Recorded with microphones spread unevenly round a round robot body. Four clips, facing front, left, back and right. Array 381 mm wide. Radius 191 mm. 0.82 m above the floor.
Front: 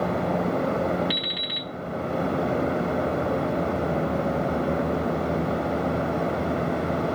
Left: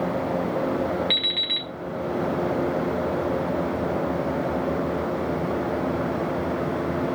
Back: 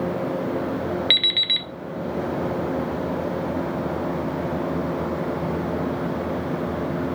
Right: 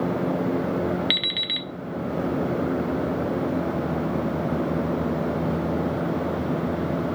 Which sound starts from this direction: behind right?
An alarm clock, at 1.1 s.